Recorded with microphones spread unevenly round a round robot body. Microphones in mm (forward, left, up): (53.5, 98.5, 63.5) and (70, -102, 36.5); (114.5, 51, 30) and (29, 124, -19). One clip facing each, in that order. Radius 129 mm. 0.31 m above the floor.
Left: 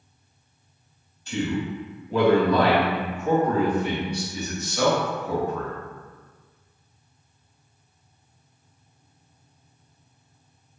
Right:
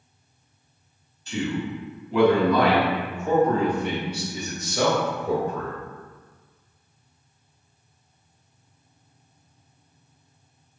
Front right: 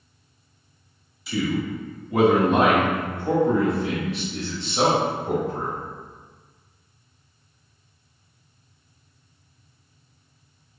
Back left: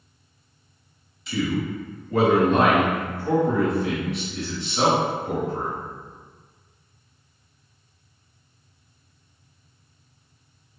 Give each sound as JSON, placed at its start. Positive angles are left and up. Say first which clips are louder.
{"t": 1.3, "sound": "a man speaking", "louder": "left 1 dB, even", "azimuth_deg": 65, "distance_m": 1.7}